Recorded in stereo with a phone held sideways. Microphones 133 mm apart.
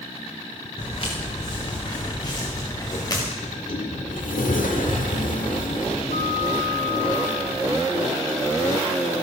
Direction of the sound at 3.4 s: 90° left.